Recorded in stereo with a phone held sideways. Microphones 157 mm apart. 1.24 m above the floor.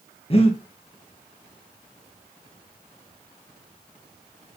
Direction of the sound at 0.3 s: 40° left (ahead or behind).